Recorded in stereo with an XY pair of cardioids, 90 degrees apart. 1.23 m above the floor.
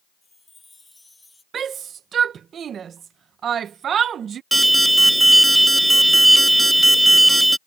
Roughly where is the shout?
Ahead right.